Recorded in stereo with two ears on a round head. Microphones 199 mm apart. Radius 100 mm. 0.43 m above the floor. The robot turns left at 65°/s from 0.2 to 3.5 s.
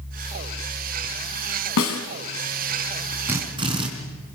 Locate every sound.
1.8 s a snare drum: 70° left (ahead or behind), 3 m; by 2.0 s 75° left (ahead or behind), 3 m
3.3 s a drill: 10° right (ahead or behind), 4 m; by 3.9 s 20° right (ahead or behind), 4 m